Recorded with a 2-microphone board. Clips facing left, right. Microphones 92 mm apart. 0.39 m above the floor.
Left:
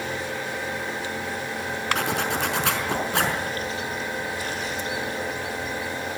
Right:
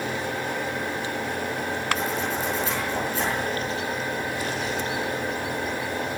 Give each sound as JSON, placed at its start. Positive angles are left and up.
{"t": 1.9, "sound": "a zipper", "side_deg": 75, "distance_m": 4.5}